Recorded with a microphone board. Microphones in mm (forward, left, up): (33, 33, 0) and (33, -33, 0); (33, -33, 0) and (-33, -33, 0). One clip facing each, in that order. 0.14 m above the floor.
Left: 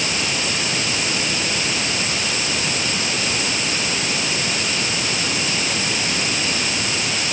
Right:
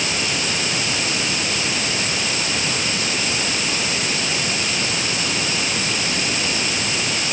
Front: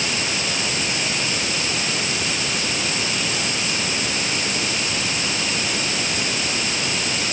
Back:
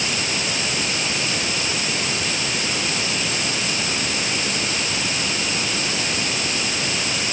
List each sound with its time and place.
Only background noise.